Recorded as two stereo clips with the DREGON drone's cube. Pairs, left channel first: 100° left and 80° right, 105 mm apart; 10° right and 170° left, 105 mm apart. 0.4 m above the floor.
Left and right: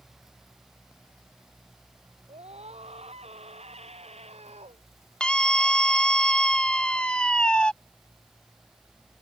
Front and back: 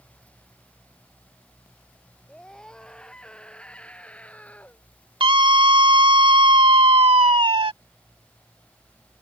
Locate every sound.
2.3 s a scream: 95° right; by 4.8 s 85° right
5.2 s a scream: straight behind